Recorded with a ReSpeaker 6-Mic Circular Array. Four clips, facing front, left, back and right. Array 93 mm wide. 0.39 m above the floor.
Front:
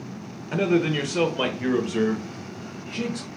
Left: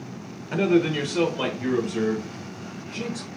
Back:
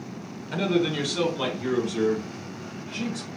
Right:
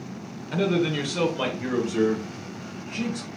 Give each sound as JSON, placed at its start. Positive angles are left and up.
{"t": 0.5, "sound": "a man speaking", "azimuth_deg": 40, "distance_m": 0.9}